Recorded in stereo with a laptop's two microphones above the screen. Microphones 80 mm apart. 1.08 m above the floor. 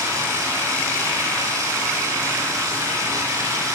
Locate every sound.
0.0 s running water: 35° right (ahead or behind), 5 m